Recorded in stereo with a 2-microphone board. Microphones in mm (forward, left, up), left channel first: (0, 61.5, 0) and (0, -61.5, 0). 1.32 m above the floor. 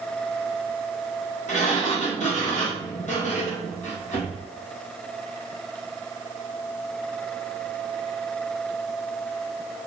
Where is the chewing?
I don't hear chewing.